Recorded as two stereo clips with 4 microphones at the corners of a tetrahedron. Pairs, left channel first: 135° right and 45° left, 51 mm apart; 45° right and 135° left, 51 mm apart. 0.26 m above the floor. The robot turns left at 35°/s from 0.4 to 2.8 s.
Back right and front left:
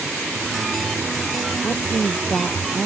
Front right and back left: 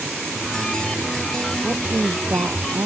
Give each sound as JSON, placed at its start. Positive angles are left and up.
{"t": 1.6, "sound": "a woman speaking", "azimuth_deg": -175}